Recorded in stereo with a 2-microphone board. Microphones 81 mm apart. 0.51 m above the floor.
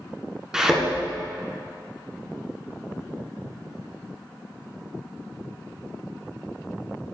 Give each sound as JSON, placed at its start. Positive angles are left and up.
{"t": 0.5, "sound": "a thud", "side_deg": -10, "distance_m": 2.0}